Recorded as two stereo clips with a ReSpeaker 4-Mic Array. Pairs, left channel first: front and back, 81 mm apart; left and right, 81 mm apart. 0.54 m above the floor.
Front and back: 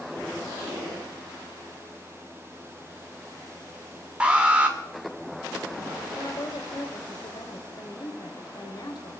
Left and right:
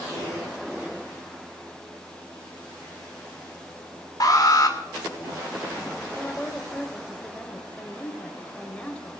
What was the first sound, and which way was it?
An alarm, 105° left.